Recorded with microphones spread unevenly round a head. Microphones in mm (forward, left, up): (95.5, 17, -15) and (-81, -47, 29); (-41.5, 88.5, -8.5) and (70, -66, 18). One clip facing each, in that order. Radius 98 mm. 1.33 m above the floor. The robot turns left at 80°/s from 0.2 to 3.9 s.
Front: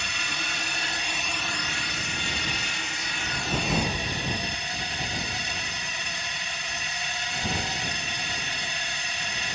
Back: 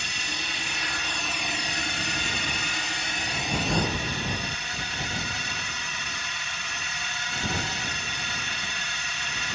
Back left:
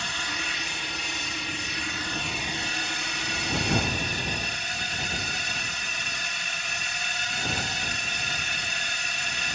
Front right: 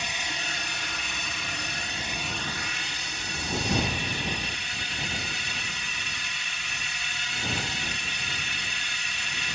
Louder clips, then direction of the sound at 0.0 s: Front 1 dB, back left 1 dB; 20° left.